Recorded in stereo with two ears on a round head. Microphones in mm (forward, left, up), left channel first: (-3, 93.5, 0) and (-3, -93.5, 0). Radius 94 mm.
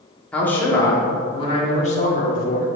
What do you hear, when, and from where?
0.3 s a man speaking: 5° left (ahead or behind), 1.6 m; by 2.7 s 45° left (ahead or behind), 1.8 m